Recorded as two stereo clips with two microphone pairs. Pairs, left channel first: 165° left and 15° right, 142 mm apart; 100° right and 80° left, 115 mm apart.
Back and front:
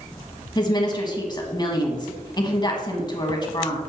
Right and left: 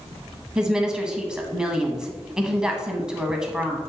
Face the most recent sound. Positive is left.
turn(degrees=160)